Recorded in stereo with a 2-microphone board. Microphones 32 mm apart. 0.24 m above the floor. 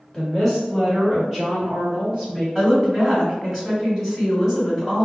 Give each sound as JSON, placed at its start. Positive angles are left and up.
{"t": 0.1, "sound": "a woman speaking", "side_deg": 0, "distance_m": 1.4}
{"t": 2.5, "sound": "a woman speaking", "side_deg": -15, "distance_m": 1.4}